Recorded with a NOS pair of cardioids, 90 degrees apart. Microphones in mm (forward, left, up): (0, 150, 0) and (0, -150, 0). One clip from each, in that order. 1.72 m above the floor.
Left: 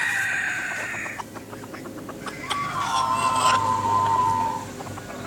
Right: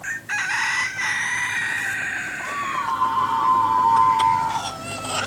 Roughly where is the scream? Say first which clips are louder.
Left 1 dB; ahead right.